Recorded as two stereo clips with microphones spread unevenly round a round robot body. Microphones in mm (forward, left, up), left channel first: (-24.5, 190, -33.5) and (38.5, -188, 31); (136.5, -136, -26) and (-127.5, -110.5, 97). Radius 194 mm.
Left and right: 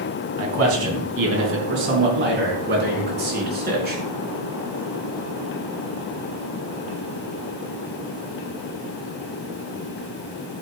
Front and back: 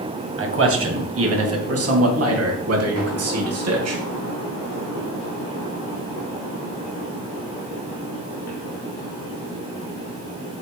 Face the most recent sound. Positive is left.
turn(degrees=-150)